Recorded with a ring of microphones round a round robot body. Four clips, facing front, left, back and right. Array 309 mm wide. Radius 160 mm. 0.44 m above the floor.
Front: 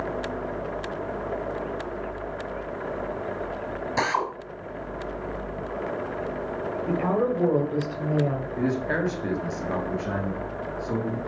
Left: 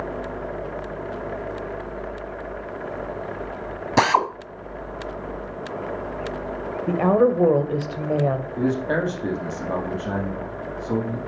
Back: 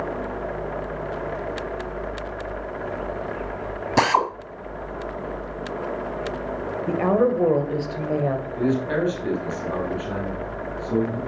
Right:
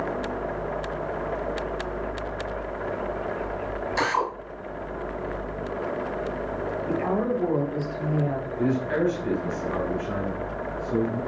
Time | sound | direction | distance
4.0 | a drill | 125° left | 1.5 m
6.9 | a woman speaking | 115° left | 2 m
8.6 | a man speaking | 80° left | 4 m